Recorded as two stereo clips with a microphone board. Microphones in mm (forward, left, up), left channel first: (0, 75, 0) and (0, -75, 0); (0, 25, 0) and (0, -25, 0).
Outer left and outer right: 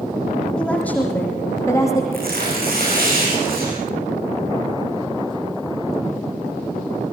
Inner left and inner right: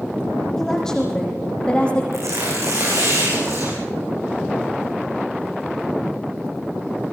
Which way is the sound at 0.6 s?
5° left (ahead or behind).